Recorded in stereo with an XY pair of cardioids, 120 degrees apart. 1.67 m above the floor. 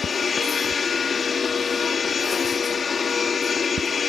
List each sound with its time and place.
0.0 s a machine running: 35° left